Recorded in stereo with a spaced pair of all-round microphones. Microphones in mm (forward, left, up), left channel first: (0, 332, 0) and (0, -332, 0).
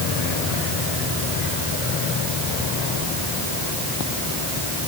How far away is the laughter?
I don't hear laughter.